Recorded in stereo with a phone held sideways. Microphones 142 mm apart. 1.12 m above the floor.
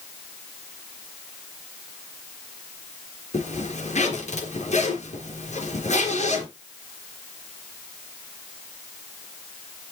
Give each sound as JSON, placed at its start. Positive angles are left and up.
{"t": 3.3, "sound": "a zipper", "side_deg": 60, "distance_m": 3.5}